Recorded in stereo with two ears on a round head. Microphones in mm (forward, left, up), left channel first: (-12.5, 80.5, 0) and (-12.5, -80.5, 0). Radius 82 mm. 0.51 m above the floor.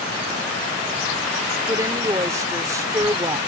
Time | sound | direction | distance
1.7 | a woman speaking | 20° right (ahead or behind) | ?